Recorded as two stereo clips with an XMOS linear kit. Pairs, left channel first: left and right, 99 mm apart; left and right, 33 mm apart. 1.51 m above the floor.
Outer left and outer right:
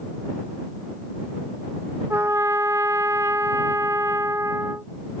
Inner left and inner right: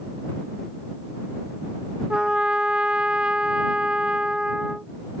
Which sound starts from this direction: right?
A trumpet, at 2.1 s.